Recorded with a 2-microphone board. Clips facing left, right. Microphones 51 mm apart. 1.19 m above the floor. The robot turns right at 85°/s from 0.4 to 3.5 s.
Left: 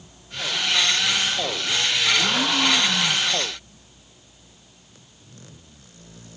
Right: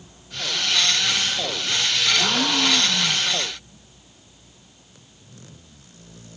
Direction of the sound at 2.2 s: 30° right.